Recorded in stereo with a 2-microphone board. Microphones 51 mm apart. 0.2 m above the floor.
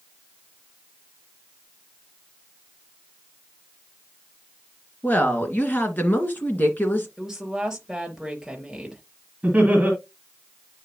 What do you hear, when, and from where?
5.0 s a woman speaking: 40° left (ahead or behind), 2 m
7.2 s a woman speaking: 5° right (ahead or behind), 3.5 m
9.4 s laughter: 25° right (ahead or behind), 2.5 m